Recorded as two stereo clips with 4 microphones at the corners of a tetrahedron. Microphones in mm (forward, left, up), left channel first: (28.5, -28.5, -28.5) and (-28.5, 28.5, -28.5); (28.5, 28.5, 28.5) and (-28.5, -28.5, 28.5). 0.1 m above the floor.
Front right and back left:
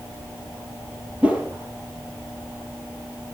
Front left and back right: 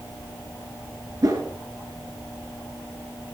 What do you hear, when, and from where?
1.2 s a whoosh: 160° right, 1.5 m